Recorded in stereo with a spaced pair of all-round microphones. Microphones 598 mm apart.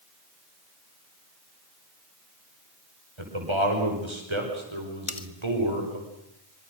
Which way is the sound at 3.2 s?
50° right (ahead or behind).